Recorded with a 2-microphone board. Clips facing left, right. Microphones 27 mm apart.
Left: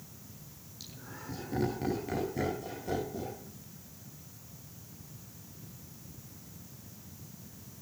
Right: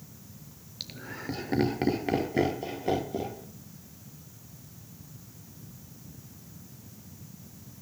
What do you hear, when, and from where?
0.8 s laughter: 55° right (ahead or behind), 3 m; by 3.4 s 45° right (ahead or behind), 4.5 m